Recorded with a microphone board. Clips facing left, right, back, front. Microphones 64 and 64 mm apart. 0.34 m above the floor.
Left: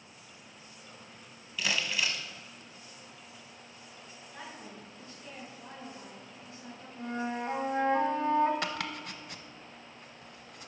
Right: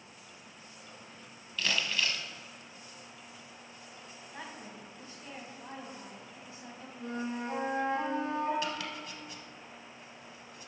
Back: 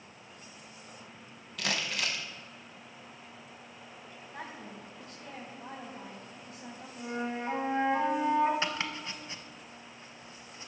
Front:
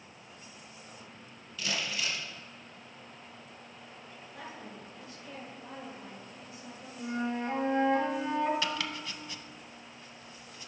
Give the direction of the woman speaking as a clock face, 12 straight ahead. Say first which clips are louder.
Even, back 2 dB; 5 o'clock.